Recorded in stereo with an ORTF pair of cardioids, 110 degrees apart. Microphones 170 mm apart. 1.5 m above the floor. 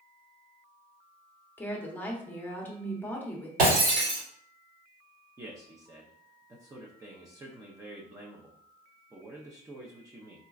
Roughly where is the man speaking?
Ahead.